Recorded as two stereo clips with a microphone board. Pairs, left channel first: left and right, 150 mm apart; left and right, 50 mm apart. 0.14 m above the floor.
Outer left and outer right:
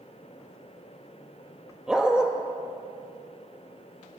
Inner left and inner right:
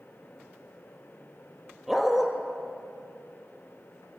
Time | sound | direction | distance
1.9 | a dog barking | 5° right (ahead or behind) | 1.0 m